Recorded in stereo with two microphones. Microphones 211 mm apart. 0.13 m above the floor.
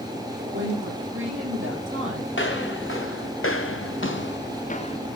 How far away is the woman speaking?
About 5 m.